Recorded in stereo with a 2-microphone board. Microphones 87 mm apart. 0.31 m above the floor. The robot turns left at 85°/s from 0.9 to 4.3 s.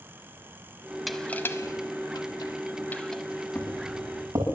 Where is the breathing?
No breathing in this recording.